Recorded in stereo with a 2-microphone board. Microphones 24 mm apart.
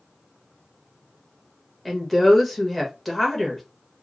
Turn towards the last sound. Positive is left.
turn(degrees=5)  # may be behind; listen again after turning